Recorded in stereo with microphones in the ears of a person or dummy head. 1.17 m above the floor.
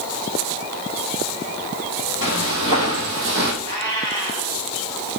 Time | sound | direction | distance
2.2 | footsteps | 60° right (ahead or behind) | 2 m
3.6 | a cat meowing | 55° right (ahead or behind) | 3 m